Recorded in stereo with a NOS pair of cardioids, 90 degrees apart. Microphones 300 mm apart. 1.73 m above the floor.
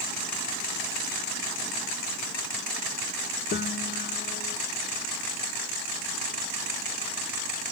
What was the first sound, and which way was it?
A piano, 35° left.